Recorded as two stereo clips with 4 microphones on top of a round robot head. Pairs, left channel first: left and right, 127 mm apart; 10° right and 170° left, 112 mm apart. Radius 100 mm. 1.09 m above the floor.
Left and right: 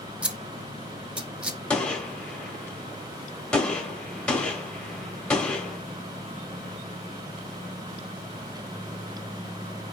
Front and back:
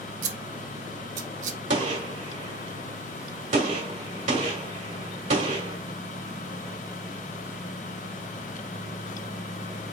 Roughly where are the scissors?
Behind.